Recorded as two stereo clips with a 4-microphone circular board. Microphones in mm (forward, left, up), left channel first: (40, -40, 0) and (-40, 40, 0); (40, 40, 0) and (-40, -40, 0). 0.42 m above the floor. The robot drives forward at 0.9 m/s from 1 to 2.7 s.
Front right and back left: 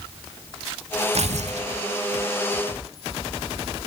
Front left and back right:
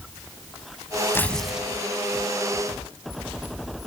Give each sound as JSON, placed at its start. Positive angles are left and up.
{"t": 1.1, "sound": "tearing paper", "azimuth_deg": 115, "distance_m": 0.6}